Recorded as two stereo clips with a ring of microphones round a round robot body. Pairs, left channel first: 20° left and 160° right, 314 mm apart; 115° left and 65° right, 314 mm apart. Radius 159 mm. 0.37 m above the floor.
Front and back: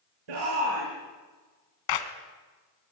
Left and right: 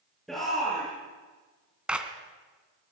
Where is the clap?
20° left, 2.5 m.